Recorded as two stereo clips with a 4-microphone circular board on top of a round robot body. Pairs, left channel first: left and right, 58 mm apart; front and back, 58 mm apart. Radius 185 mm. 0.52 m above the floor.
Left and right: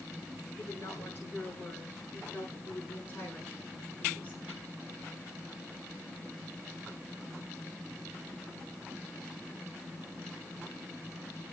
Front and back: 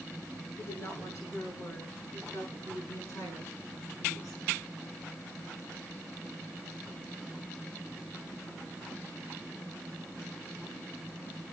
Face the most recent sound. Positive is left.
turn(degrees=25)